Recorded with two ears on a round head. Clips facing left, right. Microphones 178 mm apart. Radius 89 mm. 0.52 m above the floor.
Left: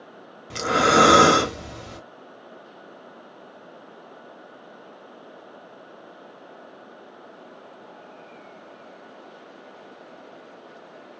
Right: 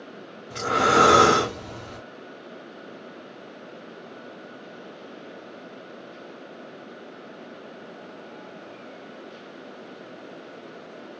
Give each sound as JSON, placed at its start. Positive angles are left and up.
{"t": 0.5, "sound": "breathing", "side_deg": 65, "distance_m": 0.8}